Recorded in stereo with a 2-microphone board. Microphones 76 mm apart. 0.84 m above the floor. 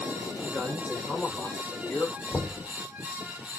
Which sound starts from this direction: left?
A man speaking, at 0.4 s.